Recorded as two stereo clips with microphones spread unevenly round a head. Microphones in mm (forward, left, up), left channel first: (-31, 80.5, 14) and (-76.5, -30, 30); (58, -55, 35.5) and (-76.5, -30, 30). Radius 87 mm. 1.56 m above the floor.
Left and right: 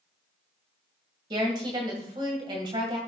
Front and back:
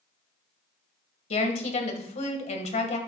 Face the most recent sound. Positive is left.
turn(degrees=-50)